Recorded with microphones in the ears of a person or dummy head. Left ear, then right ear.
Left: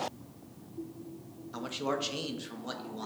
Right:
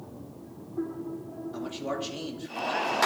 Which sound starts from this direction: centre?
A man speaking, at 1.5 s.